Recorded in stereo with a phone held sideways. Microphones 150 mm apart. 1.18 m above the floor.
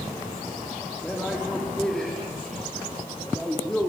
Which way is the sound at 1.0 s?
5° left (ahead or behind).